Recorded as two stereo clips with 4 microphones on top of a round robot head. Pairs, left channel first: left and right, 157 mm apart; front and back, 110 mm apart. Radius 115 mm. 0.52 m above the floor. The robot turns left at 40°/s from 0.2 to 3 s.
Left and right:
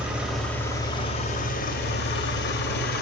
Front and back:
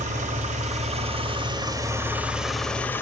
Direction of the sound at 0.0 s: 175° right.